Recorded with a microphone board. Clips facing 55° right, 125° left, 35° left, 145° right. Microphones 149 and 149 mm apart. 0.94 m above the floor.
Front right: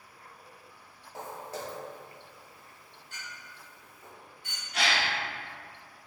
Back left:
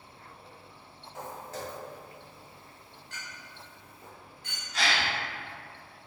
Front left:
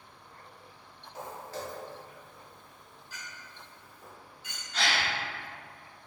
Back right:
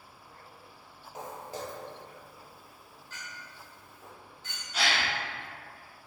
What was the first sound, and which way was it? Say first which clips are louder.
Footsteps: front right 1 dB, even; 90° right.